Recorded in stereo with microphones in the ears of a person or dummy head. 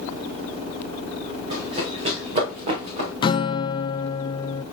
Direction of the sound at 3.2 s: 30° left (ahead or behind).